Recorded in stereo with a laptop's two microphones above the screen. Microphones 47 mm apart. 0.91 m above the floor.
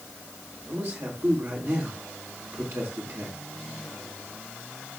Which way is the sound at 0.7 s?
70° right (ahead or behind).